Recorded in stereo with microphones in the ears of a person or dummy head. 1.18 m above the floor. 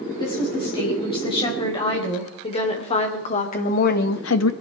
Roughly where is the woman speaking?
Left.